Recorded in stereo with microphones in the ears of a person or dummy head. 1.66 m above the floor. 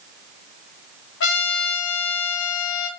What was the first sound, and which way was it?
A trumpet, 70° left (ahead or behind).